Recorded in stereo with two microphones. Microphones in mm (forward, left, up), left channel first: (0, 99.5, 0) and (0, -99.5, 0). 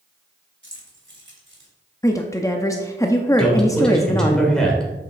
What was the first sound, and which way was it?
Keys jangling, 70° right (ahead or behind).